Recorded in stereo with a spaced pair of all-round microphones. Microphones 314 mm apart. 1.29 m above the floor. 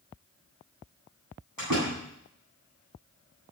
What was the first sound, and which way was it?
A door slam, 80° right.